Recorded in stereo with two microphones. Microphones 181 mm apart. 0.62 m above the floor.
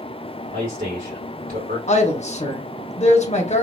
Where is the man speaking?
50° right (ahead or behind), 1.9 m.